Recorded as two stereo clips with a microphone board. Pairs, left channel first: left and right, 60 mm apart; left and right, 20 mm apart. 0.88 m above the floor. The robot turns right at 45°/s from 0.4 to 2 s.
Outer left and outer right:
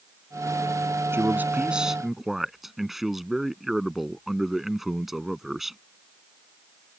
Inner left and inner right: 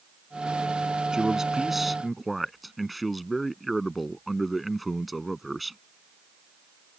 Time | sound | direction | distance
1.1 | a man speaking | 45° right | ?